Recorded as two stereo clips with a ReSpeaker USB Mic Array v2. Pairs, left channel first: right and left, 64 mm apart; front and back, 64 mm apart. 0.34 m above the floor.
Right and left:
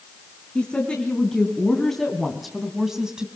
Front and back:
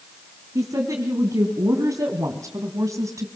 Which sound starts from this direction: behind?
A woman speaking, at 0.6 s.